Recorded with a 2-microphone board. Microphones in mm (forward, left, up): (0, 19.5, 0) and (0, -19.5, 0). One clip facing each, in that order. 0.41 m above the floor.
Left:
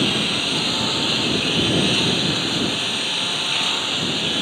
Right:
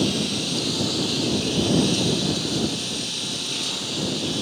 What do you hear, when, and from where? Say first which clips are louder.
0.0 s a lawn mower: left 3 dB; 40° left (ahead or behind)